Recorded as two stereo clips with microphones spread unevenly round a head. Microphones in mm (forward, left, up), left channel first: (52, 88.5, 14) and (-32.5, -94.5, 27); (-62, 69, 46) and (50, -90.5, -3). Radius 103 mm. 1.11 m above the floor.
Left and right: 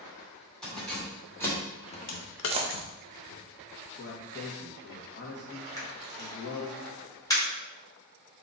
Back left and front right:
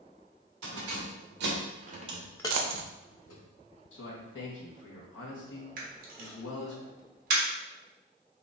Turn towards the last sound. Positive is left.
turn(degrees=-10)